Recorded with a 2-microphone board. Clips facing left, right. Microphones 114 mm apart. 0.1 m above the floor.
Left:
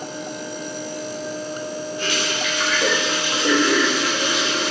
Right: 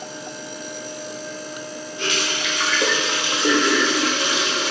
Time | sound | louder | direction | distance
2.0 | a running tap | right 1 dB | 20° right (ahead or behind) | 2.5 m